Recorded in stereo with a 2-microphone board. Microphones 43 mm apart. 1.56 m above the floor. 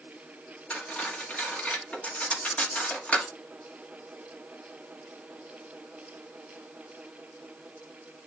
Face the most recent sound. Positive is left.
turn(degrees=35)  # may be behind; listen again after turning